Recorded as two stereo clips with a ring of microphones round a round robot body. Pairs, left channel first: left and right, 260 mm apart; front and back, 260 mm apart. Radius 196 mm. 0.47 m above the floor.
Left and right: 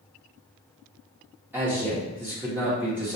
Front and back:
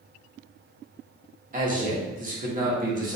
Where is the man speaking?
165° right, 1.0 m.